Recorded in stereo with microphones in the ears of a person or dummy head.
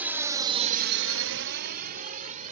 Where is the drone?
10° right (ahead or behind); by 2.5 s 40° right (ahead or behind).